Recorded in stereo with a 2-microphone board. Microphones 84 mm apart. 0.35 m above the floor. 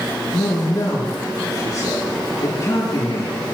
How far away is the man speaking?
About 6 m.